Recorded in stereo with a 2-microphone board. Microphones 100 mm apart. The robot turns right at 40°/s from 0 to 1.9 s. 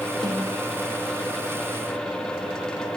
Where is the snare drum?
Centre (ahead or behind), 2 m; by 0.6 s 15° right (ahead or behind), 2 m.